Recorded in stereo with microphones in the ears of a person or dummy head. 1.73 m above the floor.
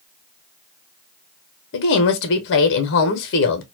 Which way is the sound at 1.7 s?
65° left (ahead or behind).